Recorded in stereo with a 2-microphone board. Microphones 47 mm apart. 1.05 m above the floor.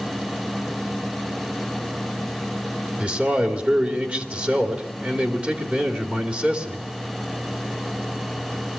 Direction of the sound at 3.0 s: 25° right (ahead or behind).